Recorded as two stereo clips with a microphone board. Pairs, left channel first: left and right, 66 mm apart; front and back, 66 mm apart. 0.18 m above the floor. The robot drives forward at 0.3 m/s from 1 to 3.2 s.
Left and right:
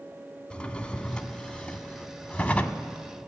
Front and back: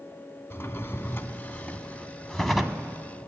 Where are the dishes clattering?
No dishes clattering in this recording.